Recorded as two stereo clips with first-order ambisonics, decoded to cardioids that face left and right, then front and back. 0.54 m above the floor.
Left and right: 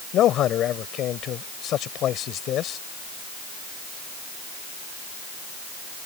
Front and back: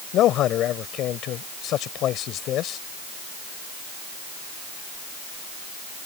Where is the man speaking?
45° left.